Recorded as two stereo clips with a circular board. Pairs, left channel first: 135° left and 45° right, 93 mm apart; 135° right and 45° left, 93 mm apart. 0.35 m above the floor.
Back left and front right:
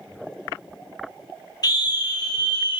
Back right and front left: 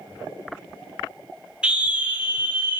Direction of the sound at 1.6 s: 120° left.